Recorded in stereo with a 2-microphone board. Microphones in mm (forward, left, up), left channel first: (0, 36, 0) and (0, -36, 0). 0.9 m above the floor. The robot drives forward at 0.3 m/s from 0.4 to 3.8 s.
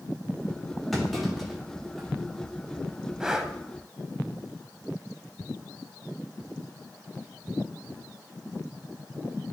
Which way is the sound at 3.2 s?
10° right (ahead or behind).